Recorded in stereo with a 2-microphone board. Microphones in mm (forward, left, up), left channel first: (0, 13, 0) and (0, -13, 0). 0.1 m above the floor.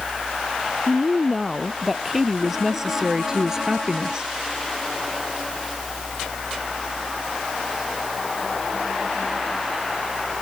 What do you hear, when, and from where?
0.9 s a woman speaking: 5° right (ahead or behind); by 4.3 s 30° right (ahead or behind)